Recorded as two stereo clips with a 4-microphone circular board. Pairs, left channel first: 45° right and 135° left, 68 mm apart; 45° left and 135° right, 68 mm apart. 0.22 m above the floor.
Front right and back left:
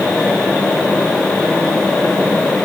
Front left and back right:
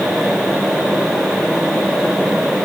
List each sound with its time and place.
Only background noise.